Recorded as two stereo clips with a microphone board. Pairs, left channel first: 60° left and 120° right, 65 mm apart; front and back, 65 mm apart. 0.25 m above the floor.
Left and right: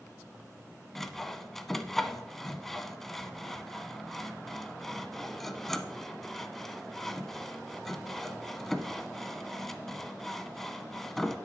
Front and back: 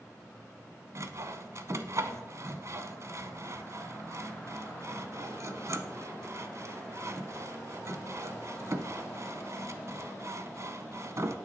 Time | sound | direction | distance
0.9 | sawing | 145° left | 0.6 m